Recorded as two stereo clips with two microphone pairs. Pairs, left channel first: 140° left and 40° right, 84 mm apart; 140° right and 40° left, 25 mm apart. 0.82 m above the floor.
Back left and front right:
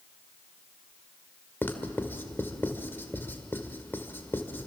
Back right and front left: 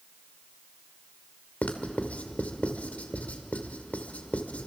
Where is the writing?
155° right, 1.9 m.